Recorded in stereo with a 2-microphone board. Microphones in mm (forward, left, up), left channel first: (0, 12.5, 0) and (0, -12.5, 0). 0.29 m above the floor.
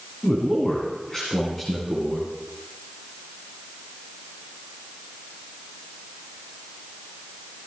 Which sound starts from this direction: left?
A man speaking, at 0.2 s.